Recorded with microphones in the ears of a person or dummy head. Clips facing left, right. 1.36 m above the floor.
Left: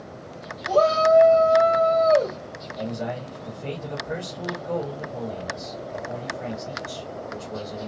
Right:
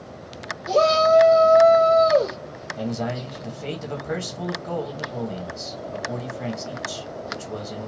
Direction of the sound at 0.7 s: 30° right (ahead or behind).